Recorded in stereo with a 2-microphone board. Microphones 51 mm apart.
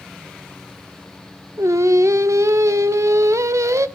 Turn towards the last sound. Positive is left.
turn(degrees=-80)